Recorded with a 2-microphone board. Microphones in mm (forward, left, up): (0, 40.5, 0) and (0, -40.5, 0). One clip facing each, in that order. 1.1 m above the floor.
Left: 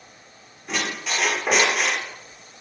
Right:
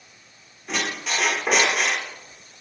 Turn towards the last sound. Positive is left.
turn(degrees=0)  # may be behind; listen again after turning